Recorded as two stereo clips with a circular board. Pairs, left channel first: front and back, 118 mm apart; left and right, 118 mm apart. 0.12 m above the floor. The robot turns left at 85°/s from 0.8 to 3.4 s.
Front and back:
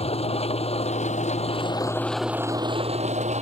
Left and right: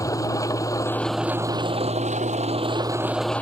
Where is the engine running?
30° left; by 3.4 s 170° left.